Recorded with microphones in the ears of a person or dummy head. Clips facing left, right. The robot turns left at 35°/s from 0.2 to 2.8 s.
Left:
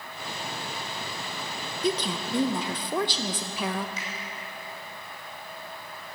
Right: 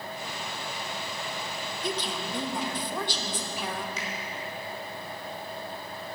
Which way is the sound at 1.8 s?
110° left.